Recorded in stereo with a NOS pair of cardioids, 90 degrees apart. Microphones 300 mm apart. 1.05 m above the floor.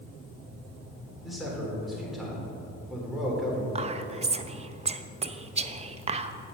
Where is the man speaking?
Straight ahead, 3.5 m.